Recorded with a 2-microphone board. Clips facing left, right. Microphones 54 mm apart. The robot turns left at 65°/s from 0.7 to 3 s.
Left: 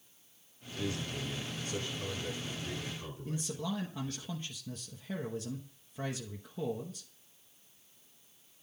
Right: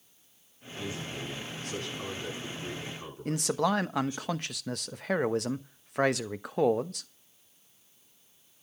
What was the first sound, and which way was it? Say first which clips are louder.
A man speaking: even; 10° right.